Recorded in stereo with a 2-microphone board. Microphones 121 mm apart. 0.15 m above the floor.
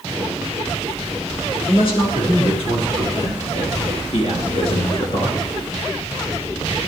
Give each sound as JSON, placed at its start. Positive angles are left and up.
{"t": 1.7, "sound": "a man speaking", "side_deg": 55, "distance_m": 4.5}